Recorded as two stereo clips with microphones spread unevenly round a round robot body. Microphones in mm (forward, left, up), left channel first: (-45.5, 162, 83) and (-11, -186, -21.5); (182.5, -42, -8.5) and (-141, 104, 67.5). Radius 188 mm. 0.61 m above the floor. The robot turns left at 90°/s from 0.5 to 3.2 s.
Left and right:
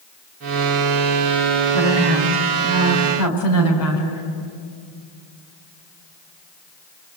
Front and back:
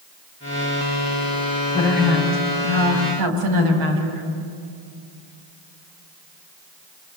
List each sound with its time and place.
1.7 s a woman speaking: 100° right, 5.5 m; by 4.2 s 130° left, 5.5 m